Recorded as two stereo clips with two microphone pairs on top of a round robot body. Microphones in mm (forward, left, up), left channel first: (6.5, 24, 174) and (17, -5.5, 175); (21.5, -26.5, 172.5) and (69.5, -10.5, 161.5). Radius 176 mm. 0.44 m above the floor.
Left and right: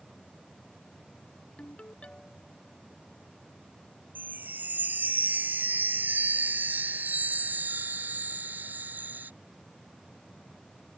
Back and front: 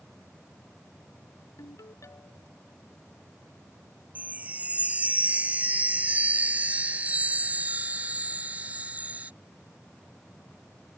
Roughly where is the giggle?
No giggle in this recording.